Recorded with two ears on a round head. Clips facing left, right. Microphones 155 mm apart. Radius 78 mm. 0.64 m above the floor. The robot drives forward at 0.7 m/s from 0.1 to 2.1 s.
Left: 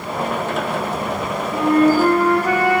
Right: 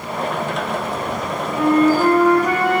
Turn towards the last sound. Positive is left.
turn(degrees=5)  # may be behind; listen again after turning